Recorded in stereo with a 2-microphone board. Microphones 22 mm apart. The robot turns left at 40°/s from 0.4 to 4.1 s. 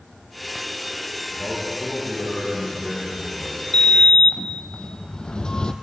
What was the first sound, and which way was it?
A man speaking, 100° right.